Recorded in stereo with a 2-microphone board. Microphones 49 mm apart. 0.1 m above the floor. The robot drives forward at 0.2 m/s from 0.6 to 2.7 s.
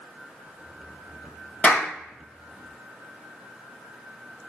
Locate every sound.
1.6 s a clap: 30° left (ahead or behind), 1.8 m; by 1.9 s 25° left (ahead or behind), 1.9 m